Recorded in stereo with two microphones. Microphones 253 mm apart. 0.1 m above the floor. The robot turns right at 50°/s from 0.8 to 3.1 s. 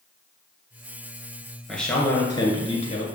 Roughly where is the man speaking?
Centre.